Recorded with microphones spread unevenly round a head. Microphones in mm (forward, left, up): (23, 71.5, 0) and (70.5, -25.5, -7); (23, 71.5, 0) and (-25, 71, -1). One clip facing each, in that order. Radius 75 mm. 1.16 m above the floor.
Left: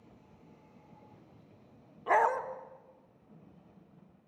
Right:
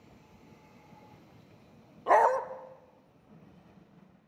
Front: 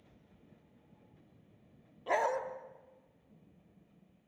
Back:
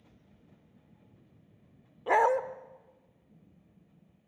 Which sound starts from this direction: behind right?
A dog barking, at 2.1 s.